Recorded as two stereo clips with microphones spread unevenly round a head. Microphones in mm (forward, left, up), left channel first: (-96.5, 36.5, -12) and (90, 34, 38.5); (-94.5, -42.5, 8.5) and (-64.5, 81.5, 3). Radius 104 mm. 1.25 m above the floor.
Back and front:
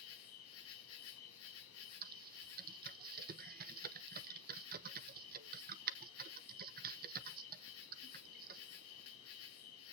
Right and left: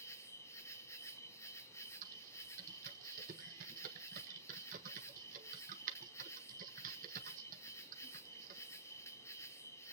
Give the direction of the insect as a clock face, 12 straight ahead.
6 o'clock.